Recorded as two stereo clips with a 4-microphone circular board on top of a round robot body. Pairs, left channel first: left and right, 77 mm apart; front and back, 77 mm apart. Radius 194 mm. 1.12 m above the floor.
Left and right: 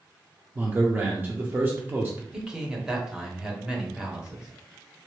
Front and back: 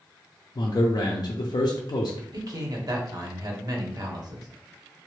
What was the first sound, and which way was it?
A man speaking, 25° right.